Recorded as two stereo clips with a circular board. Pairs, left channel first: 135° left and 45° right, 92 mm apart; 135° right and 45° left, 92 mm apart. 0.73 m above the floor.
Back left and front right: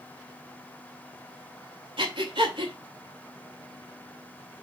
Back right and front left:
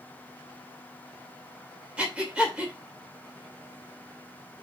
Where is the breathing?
30° right, 2.5 m.